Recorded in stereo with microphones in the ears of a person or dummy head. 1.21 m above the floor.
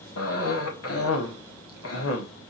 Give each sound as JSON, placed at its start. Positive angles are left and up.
{"t": 0.2, "sound": "a cough", "side_deg": 85, "distance_m": 1.5}